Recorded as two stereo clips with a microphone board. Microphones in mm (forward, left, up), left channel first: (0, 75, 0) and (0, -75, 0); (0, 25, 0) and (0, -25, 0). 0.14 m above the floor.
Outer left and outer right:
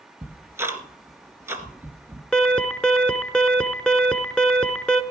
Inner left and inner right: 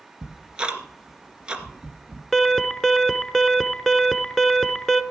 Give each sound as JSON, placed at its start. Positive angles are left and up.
{"t": 0.2, "sound": "ticking", "side_deg": -15, "distance_m": 1.8}
{"t": 2.3, "sound": "an alarm", "side_deg": 5, "distance_m": 1.0}